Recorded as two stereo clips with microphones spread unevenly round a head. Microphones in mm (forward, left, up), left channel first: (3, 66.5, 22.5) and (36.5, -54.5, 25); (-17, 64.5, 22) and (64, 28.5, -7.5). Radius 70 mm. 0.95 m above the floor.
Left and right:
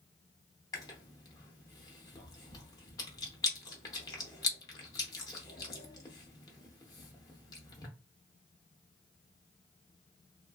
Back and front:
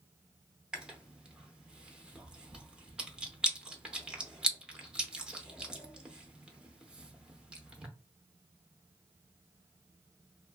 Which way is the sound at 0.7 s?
85° left.